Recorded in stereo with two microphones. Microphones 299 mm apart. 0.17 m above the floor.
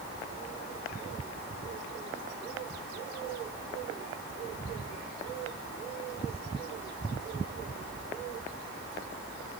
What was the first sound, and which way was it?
Only background noise.